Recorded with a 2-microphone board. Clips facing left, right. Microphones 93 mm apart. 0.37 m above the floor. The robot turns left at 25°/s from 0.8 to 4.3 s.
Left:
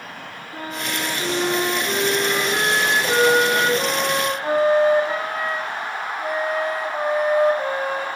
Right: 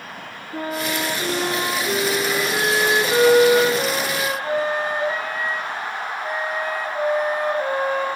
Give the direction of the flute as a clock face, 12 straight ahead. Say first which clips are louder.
Right 4 dB; 6 o'clock.